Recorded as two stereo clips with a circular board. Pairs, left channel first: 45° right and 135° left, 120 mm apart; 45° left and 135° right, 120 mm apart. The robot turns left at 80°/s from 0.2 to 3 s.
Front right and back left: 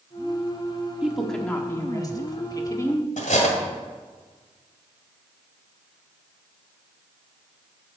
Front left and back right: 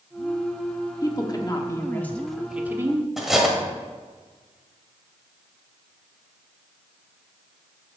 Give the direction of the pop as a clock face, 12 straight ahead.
No pop in this recording.